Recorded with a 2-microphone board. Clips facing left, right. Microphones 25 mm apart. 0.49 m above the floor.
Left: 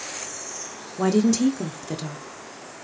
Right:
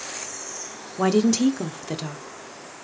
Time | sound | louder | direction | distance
1.0 | a woman speaking | even | 20° right (ahead or behind) | 0.9 m